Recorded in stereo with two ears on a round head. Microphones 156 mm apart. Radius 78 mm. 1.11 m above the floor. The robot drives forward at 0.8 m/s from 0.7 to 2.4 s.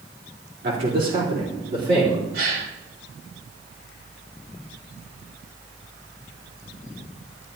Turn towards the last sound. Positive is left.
turn(degrees=-65)  # may be behind; listen again after turning